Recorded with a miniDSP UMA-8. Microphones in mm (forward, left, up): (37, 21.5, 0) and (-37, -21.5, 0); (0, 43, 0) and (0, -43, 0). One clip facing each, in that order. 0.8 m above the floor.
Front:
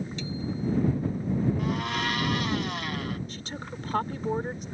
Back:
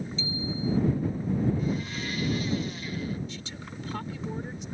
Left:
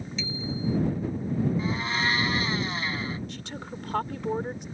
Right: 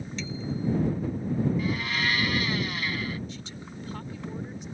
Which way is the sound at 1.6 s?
25° left.